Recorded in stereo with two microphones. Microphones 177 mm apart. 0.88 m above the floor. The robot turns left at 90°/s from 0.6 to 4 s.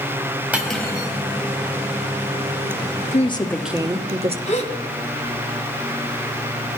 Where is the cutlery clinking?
170° right, 3 m; by 1.1 s 140° left, 3 m.